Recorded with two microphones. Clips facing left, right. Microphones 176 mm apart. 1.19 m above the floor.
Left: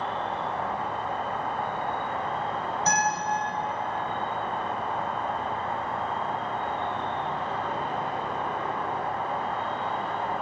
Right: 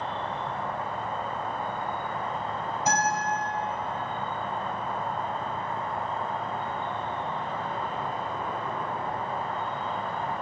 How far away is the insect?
About 1.1 m.